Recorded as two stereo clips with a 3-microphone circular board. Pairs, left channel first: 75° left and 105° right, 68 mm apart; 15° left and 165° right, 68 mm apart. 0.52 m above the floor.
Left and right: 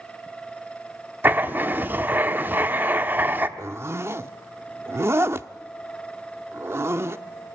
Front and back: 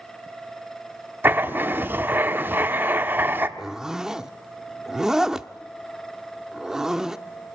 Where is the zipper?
90° right, 0.7 m.